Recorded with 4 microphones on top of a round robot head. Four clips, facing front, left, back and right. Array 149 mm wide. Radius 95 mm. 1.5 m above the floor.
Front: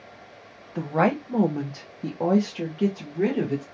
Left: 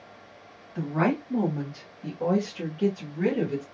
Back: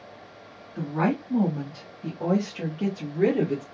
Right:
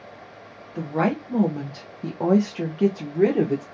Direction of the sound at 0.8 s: 10° right.